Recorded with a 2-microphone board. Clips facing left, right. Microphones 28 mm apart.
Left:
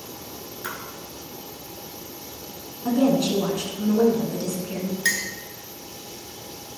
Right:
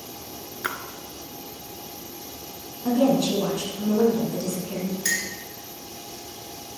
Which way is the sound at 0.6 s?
50° right (ahead or behind).